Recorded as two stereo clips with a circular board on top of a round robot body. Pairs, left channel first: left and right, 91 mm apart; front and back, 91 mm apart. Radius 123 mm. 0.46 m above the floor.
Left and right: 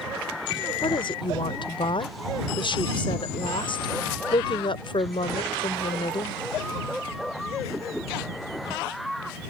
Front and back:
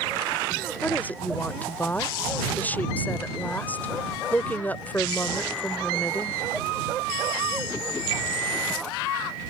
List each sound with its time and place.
0.8 s a woman speaking: 70° left